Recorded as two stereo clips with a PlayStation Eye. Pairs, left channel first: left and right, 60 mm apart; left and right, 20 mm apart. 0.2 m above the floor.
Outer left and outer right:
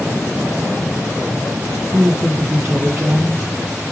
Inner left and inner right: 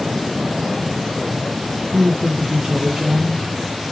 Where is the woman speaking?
60° right (ahead or behind), 4.5 m.